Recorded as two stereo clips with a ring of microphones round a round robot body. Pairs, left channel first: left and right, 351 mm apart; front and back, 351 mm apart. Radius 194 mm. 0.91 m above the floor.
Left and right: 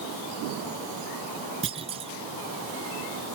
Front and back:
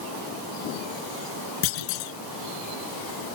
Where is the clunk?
15° right.